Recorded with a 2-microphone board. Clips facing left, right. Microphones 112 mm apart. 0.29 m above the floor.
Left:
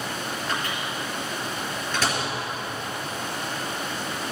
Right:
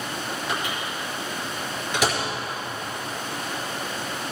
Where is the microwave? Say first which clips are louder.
Even; 15° right (ahead or behind), 4.5 m.